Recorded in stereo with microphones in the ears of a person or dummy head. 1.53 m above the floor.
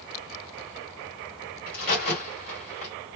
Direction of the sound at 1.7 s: 45° left (ahead or behind).